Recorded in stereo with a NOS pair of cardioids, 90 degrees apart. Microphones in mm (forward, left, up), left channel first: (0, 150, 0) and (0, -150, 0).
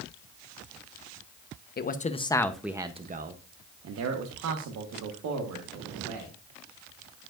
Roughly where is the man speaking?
Ahead left.